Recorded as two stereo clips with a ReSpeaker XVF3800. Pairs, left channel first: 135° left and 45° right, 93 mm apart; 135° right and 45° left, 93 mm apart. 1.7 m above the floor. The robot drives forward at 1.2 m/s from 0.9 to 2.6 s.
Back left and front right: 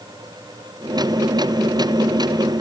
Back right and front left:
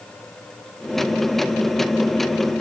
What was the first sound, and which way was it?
Only background noise.